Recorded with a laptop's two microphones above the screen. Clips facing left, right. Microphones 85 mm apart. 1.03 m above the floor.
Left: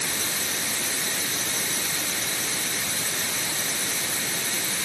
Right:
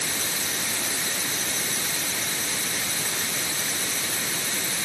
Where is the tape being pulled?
I don't hear tape being pulled.